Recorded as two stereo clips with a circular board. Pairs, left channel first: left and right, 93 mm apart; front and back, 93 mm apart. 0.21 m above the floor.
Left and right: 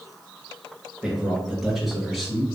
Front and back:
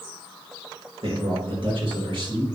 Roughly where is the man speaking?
Behind.